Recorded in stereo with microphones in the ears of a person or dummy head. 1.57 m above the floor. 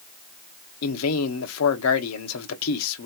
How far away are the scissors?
No scissors in this recording.